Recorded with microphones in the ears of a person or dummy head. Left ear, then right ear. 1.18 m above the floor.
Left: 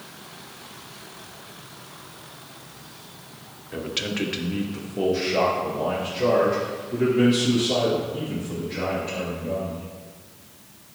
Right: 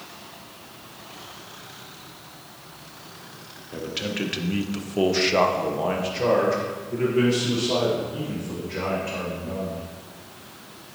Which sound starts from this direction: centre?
A man speaking, at 3.7 s.